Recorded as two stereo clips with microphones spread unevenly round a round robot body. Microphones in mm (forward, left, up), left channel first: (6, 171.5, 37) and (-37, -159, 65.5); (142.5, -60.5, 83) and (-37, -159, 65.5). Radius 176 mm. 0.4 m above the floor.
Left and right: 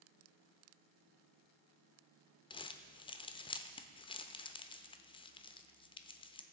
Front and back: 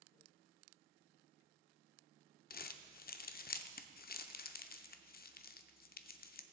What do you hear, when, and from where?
2.5 s crumpling: 25° left, 0.6 m